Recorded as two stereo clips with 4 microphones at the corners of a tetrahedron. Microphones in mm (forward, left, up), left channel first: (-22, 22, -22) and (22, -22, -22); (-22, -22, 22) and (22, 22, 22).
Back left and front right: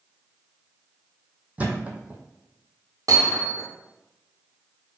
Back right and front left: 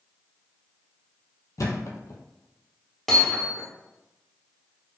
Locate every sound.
1.6 s a thud: 110° right, 0.7 m
3.1 s hammering: 50° right, 1.2 m